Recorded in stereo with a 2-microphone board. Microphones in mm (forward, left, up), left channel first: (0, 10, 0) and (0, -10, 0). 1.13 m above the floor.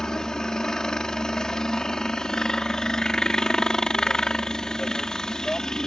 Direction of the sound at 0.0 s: 40° left (ahead or behind).